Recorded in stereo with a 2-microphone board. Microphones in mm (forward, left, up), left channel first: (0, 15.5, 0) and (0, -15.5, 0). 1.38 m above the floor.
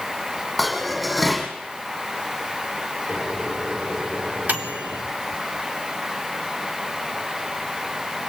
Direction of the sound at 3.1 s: 55° right (ahead or behind).